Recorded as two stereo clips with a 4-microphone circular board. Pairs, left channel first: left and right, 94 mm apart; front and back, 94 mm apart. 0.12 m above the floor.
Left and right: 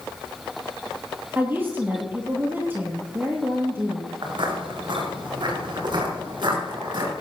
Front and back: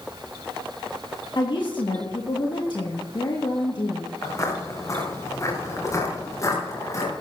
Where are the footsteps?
55° right, 3.5 m.